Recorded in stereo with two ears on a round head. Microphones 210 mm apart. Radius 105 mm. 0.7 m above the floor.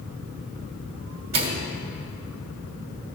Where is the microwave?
45° right (ahead or behind), 1.3 m.